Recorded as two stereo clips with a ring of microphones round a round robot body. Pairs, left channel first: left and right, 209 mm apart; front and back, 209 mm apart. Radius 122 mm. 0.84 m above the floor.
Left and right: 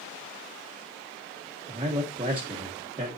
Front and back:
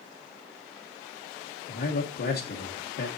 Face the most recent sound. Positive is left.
turn(degrees=-30)